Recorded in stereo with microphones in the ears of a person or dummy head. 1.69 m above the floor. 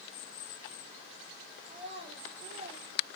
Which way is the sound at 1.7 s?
30° right (ahead or behind).